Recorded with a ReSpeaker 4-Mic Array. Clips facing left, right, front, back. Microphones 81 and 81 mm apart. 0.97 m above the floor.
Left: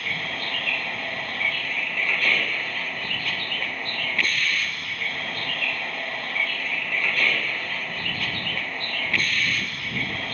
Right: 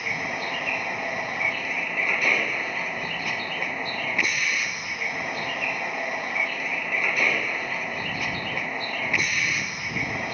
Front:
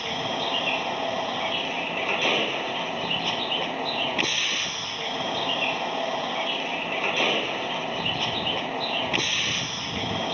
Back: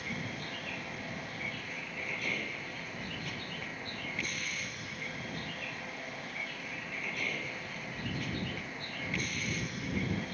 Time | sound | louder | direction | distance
0.0 | a vehicle | right 2 dB, front 12 dB | 15° right | ?